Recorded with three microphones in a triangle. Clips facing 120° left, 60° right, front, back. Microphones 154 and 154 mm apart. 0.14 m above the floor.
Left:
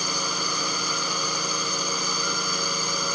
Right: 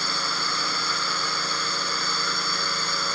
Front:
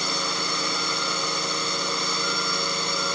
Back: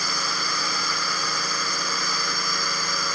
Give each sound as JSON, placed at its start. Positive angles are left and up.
{"t": 0.0, "sound": "a drone", "azimuth_deg": 55}